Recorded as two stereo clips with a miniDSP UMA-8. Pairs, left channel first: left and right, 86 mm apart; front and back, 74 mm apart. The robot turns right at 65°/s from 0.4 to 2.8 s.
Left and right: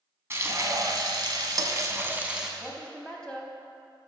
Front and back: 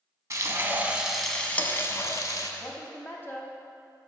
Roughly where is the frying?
Behind right.